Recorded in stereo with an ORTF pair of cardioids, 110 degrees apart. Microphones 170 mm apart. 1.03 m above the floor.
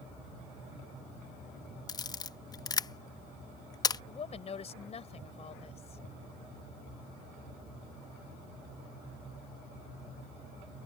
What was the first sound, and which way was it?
A camera shutter, 25° left.